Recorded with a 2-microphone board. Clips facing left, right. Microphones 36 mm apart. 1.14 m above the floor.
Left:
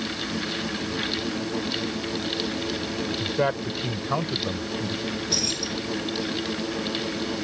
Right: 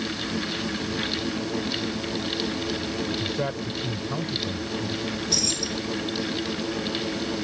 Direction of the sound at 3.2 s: 20° left (ahead or behind).